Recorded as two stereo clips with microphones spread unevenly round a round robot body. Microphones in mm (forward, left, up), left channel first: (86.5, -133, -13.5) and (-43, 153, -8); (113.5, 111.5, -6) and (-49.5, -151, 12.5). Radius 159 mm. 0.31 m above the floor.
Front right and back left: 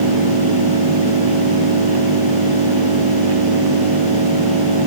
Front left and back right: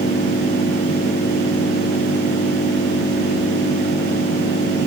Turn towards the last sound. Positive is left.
turn(degrees=130)